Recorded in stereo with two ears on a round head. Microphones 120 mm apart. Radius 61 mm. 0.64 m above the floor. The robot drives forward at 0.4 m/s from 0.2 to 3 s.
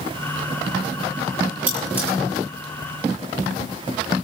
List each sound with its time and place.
1.7 s cutlery clinking: 10° right (ahead or behind), 8 m; by 2.1 s 15° right (ahead or behind), 7.5 m